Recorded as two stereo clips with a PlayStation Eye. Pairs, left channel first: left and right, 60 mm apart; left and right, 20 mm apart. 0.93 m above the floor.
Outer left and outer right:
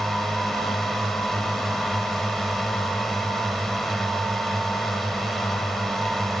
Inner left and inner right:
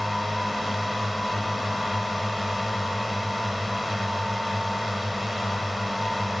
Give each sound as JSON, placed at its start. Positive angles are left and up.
{"t": 0.0, "sound": "a drone", "side_deg": 5}